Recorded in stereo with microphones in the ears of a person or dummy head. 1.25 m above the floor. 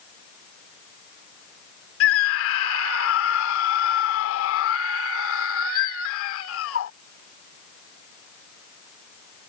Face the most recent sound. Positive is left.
turn(degrees=85)